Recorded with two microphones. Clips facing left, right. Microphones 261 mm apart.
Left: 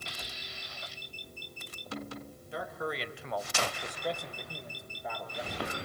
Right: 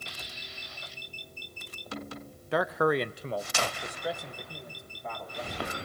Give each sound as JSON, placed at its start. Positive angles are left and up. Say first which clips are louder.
{"t": 2.5, "sound": "a man speaking", "louder": "right 11 dB", "side_deg": -75, "distance_m": 0.8}